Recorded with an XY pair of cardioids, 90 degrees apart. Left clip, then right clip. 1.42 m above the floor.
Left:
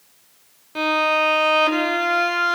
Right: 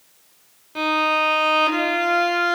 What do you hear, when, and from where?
0.8 s a violin: 15° left, 3.5 m